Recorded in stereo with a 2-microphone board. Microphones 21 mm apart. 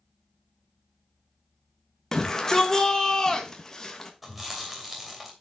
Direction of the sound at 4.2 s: 5° right (ahead or behind).